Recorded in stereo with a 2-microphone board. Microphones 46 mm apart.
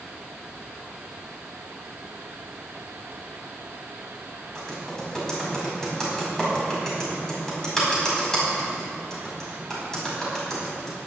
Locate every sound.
4.5 s typing on a keyboard: 15° left (ahead or behind), 5 m